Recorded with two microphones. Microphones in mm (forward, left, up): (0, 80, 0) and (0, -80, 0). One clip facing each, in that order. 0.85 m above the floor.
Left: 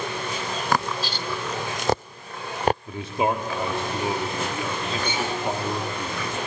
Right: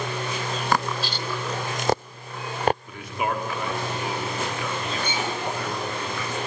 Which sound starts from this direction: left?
A man speaking, at 2.9 s.